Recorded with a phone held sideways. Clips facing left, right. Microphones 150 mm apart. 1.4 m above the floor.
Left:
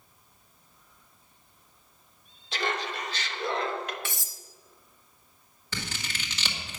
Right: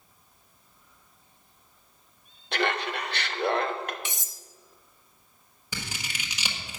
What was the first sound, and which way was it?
Laughter, 65° right (ahead or behind).